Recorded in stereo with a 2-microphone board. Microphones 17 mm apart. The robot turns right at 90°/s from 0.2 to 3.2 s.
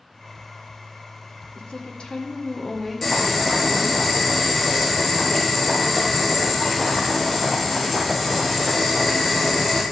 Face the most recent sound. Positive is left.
turn(degrees=-5)  # may be behind; listen again after turning